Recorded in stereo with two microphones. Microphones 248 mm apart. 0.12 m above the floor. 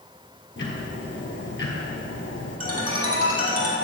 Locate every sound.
0.6 s ticking: 50° left (ahead or behind), 1.7 m
2.6 s a ringtone: 70° right (ahead or behind), 2.5 m